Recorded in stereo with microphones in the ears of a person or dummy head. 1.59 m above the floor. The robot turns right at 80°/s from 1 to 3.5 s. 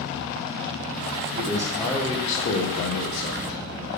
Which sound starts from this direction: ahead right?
A man speaking, at 1.3 s.